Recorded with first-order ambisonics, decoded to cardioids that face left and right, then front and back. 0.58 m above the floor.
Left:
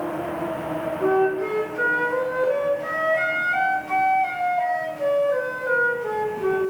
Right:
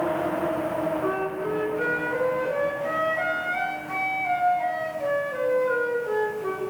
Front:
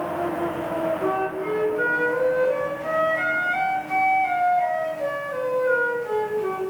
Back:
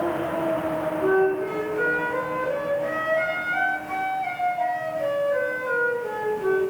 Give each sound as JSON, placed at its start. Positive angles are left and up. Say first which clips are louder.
{"t": 1.0, "sound": "a flute", "louder": "left 6 dB, back 3 dB", "azimuth_deg": 100, "distance_m": 4.0}